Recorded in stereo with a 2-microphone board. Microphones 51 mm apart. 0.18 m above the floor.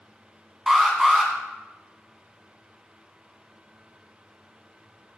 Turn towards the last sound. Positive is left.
turn(degrees=-10)  # may be behind; listen again after turning